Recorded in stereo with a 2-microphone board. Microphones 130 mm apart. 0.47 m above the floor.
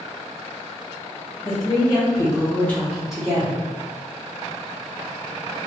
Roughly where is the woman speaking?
Left.